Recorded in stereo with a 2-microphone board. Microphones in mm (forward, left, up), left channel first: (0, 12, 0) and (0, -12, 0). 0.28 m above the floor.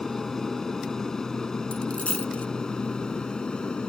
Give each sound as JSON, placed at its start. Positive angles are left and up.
{"t": 0.0, "sound": "an aircraft", "side_deg": 15}
{"t": 1.7, "sound": "a dropped coin", "side_deg": 60}